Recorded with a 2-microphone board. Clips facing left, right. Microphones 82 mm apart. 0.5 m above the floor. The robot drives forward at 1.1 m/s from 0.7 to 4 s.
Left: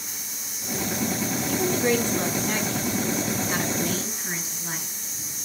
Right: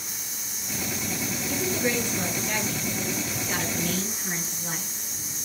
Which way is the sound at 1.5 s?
50° left (ahead or behind).